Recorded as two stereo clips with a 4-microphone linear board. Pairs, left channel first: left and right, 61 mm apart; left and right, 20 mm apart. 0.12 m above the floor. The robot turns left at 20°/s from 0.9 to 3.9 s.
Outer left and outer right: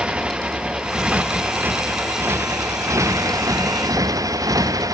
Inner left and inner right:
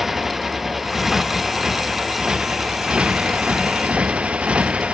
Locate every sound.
0.0 s a motorcycle: 20° right; by 5.0 s 80° right